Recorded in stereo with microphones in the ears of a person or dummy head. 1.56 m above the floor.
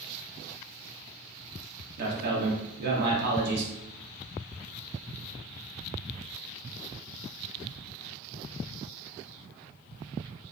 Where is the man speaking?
60° right (ahead or behind), 0.9 m.